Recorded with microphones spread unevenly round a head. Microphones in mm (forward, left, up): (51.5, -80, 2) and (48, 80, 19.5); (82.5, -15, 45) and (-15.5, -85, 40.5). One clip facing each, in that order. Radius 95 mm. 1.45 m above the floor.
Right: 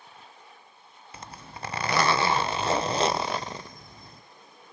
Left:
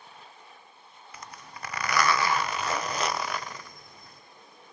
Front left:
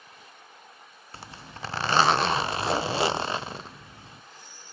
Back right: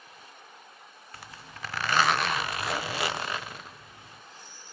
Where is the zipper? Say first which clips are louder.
Right 3 dB, front left 4 dB; 25° right, 0.5 m.